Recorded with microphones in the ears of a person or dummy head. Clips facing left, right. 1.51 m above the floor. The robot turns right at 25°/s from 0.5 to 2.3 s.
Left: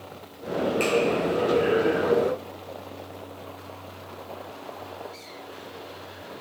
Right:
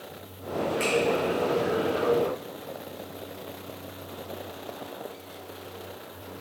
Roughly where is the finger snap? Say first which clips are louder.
Left 3 dB; centre.